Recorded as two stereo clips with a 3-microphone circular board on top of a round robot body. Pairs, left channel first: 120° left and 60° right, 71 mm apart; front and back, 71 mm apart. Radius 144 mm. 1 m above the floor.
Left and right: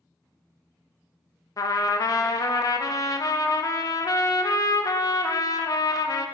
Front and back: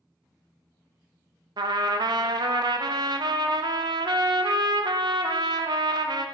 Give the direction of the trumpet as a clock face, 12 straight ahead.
7 o'clock.